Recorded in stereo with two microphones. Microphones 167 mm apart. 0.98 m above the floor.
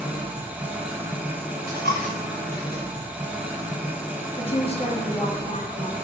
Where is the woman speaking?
35° left (ahead or behind), 1.4 m.